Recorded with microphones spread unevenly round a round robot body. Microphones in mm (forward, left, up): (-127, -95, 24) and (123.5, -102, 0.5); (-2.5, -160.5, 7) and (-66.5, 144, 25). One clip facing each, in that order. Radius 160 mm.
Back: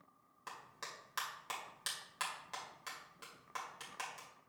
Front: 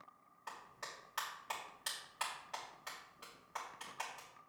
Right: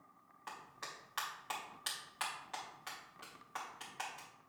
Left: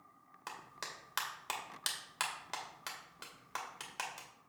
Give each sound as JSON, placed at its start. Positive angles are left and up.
{"t": 0.5, "sound": "a clap", "azimuth_deg": 125, "distance_m": 2.5}